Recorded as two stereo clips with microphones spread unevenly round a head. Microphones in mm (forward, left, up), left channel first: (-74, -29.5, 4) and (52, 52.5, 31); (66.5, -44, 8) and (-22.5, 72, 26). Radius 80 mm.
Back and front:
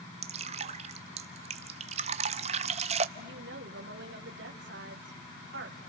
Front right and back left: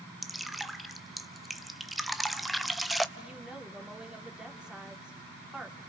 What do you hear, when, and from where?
0.2 s dripping: 45° left, 0.8 m
3.2 s a woman speaking: 45° left, 3 m